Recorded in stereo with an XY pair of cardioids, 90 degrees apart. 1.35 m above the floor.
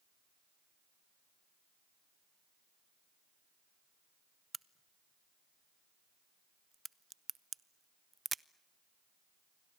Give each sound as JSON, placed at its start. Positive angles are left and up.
{"t": 4.5, "sound": "a crack", "azimuth_deg": -25, "distance_m": 0.7}